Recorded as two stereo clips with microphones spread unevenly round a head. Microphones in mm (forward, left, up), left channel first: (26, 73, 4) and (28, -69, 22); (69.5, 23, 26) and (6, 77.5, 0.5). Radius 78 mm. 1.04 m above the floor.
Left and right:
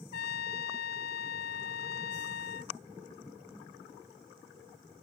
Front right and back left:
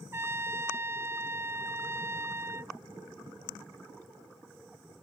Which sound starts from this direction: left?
A trumpet, at 0.1 s.